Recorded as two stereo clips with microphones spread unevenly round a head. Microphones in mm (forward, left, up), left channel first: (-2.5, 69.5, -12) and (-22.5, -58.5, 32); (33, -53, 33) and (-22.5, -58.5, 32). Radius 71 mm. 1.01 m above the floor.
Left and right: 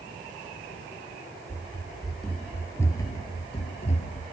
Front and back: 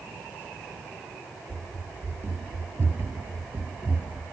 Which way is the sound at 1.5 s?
155° right.